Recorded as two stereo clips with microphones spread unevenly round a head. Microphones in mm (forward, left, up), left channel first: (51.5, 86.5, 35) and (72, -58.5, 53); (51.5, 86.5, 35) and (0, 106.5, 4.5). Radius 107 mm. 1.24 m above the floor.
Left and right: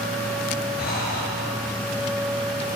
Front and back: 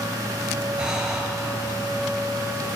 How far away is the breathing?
About 7 m.